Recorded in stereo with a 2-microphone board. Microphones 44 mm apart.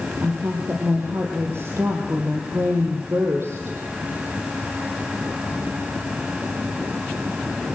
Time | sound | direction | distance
0.2 | a woman speaking | 70° right (ahead or behind) | 4 m